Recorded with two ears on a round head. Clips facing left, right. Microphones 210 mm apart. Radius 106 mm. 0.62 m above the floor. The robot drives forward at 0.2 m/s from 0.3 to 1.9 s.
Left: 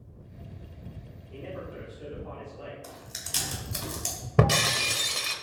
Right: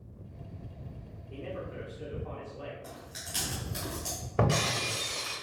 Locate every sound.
1.3 s a man speaking: 25° right (ahead or behind), 1.2 m
2.8 s chewing: 65° left (ahead or behind), 1.3 m
4.4 s breaking glass: 50° left (ahead or behind), 0.5 m